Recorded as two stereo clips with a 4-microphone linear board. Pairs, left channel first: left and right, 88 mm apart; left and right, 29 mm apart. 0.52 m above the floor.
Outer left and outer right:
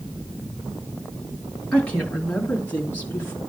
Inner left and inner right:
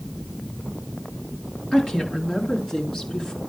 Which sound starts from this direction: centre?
A woman speaking, at 1.7 s.